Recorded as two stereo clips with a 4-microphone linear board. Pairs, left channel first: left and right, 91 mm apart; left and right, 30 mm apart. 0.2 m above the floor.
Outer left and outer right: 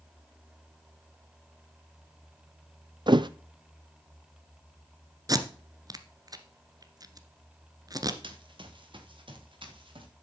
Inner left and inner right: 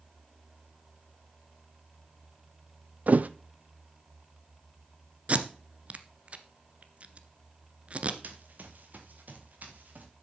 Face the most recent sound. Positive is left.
turn(degrees=-65)  # may be behind; listen again after turning